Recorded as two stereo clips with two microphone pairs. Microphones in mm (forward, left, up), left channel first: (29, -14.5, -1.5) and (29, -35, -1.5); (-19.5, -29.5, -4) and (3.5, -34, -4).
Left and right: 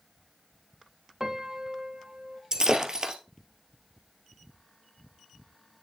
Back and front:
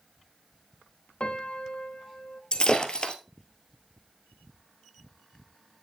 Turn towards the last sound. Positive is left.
turn(degrees=-145)